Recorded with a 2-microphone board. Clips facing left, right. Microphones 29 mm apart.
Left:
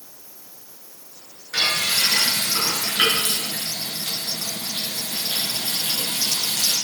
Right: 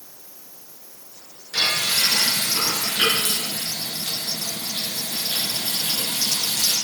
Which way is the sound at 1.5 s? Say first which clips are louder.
Even; 65° left (ahead or behind).